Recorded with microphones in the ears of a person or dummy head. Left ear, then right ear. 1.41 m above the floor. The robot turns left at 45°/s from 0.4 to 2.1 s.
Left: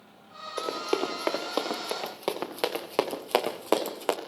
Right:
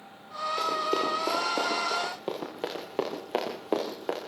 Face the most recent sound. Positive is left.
turn(degrees=40)  # may be behind; listen again after turning